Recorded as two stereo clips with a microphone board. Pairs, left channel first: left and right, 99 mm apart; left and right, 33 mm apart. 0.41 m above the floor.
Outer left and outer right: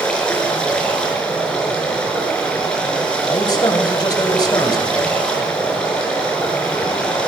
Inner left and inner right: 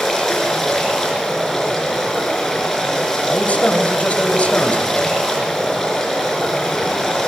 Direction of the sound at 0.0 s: 10° left (ahead or behind).